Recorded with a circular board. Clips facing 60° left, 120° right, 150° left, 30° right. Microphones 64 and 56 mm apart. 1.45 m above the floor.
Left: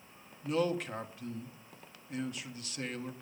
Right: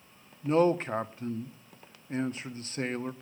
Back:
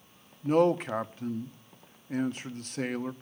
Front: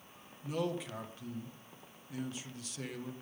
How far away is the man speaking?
About 1.0 m.